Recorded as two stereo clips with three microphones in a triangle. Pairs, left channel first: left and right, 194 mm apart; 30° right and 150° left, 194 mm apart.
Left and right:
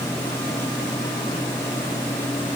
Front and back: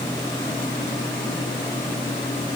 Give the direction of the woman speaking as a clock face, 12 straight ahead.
I don't hear a woman speaking.